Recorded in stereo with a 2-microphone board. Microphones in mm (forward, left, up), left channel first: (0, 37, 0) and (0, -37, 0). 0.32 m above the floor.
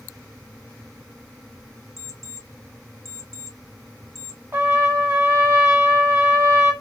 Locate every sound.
2.0 s an alarm clock: 45° left (ahead or behind), 1.7 m
4.5 s a trumpet: 30° right (ahead or behind), 1.2 m